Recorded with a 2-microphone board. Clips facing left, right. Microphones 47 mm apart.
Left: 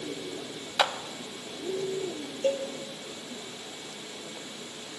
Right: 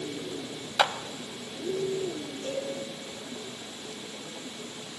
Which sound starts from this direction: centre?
A clap, at 0.8 s.